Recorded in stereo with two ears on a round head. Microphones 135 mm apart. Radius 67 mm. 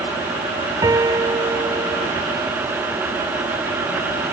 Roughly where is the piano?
Right.